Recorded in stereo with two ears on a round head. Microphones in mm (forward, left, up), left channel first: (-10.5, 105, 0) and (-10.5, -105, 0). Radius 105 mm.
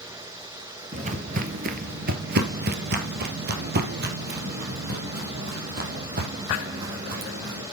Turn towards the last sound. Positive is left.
turn(degrees=-40)  # may be behind; listen again after turning